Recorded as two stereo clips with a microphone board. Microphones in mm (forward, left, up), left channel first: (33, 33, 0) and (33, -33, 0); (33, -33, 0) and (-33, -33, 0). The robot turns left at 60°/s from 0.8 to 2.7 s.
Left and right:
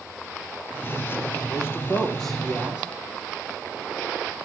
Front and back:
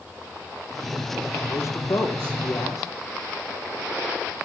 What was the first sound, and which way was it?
A man speaking, 55° left.